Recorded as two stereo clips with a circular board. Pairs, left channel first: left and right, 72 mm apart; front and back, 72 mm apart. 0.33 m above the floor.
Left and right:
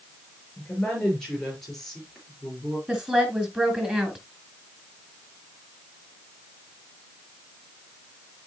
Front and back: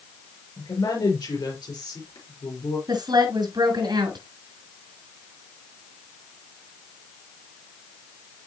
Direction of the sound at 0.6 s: 15° left.